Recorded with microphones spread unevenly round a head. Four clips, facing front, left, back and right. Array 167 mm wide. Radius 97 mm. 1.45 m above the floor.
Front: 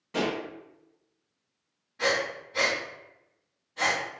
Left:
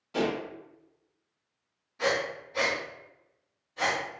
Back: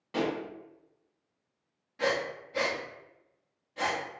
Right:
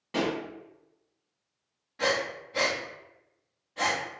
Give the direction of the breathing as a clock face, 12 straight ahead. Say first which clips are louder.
Even, front 2 dB; 5 o'clock.